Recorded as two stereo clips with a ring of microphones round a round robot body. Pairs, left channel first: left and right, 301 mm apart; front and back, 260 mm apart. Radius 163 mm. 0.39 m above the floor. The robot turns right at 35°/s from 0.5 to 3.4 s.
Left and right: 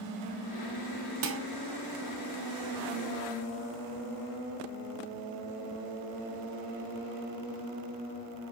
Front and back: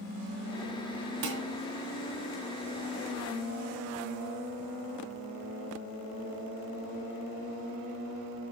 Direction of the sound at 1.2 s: 130° right.